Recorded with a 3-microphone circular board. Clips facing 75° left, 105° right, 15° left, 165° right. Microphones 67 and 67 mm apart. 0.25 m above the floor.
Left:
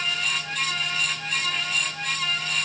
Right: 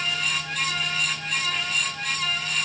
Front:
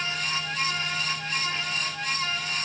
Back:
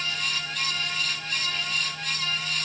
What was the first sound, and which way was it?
Only background noise.